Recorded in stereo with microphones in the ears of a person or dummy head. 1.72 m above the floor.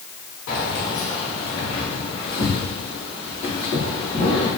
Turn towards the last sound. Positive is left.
turn(degrees=20)  # may be behind; listen again after turning